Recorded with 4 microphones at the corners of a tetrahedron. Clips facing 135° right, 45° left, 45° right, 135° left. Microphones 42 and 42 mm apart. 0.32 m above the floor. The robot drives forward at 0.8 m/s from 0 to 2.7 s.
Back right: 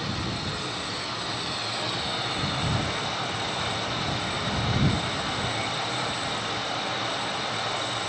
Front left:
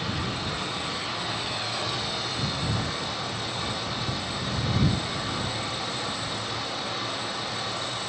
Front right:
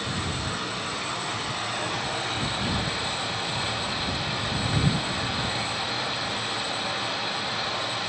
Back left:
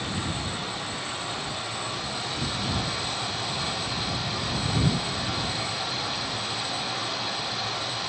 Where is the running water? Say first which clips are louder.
Front left 1 dB, front right 1 dB; 20° right, 2 m; by 8.1 s 110° right, 0.8 m.